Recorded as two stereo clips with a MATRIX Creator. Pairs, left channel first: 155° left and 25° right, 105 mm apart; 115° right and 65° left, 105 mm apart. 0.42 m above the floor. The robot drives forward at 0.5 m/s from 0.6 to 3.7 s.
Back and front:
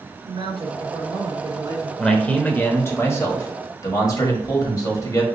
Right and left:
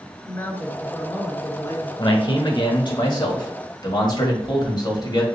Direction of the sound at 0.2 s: 40° right.